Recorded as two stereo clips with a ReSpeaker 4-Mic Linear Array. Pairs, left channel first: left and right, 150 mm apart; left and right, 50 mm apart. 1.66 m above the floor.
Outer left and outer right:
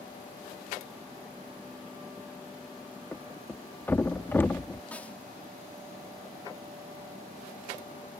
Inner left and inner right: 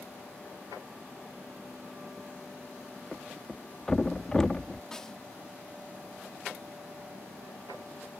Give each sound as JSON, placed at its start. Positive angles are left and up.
{"t": 3.1, "sound": "a thud", "side_deg": 15}
{"t": 4.9, "sound": "a snare drum", "side_deg": 10}